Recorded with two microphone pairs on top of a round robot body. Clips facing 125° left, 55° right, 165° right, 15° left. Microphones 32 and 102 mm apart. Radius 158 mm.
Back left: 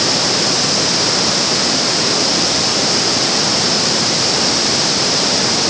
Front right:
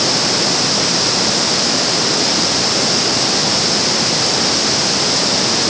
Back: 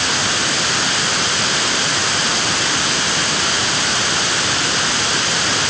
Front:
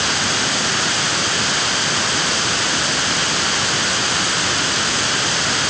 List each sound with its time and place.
Only background noise.